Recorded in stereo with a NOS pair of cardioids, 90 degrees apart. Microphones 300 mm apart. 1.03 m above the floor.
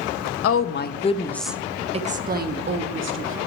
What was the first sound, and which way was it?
A woman speaking, 55° left.